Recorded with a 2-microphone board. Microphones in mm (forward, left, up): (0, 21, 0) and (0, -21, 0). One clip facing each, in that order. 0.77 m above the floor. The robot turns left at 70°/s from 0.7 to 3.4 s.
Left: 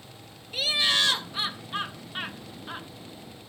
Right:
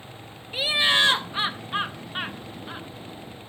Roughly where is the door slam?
I don't hear a door slam.